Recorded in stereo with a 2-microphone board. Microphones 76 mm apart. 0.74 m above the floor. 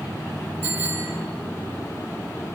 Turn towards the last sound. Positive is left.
turn(degrees=-30)  # may be behind; listen again after turning